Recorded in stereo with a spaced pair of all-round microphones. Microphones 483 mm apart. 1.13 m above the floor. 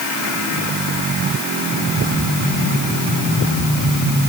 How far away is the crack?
No crack in this recording.